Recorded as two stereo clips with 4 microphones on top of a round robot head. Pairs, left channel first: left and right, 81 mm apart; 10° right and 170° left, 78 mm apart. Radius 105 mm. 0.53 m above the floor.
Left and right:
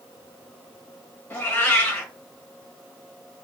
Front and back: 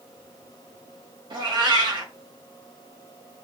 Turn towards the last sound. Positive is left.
turn(degrees=155)